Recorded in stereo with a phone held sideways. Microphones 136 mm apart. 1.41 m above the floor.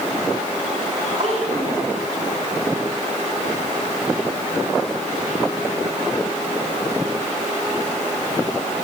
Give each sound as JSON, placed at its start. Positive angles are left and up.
{"t": 1.2, "sound": "a child speaking", "side_deg": -70, "distance_m": 4.0}